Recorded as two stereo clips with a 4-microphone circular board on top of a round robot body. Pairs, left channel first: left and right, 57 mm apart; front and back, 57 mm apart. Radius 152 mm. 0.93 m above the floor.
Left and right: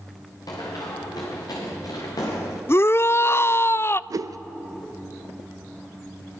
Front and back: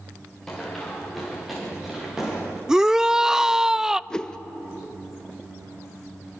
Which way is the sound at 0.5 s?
85° left.